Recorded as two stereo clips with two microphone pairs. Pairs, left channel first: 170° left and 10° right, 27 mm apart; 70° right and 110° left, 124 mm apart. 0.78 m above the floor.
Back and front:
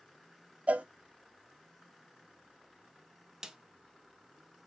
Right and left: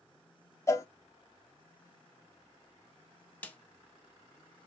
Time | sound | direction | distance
0.7 | a cowbell | 10° right | 0.5 m
3.4 | a snare drum | 25° right | 0.5 m